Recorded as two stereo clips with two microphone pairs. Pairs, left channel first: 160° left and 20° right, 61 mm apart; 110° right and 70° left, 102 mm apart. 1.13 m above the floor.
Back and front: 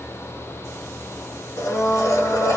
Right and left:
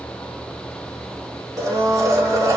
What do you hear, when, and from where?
1.6 s a blender: 125° left, 1.1 m